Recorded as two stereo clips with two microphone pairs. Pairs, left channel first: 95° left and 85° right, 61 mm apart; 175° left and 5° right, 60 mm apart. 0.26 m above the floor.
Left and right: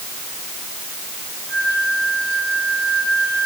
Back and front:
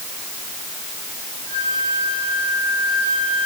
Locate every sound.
1.5 s a flute: 70° left, 8 m